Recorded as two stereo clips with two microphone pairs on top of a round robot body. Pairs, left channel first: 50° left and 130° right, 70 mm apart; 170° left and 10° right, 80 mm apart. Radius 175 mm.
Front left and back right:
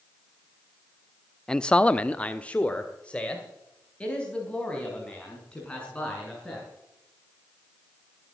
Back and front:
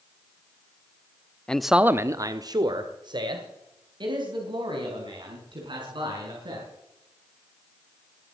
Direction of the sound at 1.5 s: 100° left.